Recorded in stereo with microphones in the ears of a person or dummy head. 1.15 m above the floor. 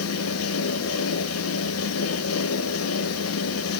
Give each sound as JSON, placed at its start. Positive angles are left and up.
{"t": 0.0, "sound": "a fan", "side_deg": 75, "distance_m": 0.8}